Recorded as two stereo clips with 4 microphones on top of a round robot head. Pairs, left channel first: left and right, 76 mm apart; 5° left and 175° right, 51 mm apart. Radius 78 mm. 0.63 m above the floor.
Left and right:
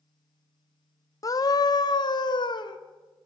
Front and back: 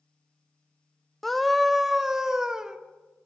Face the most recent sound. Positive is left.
turn(degrees=105)